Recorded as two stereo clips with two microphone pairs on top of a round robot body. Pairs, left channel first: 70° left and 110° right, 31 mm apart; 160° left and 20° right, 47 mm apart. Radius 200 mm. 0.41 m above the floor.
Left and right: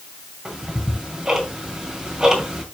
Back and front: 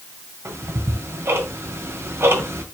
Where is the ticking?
40° right, 2 m.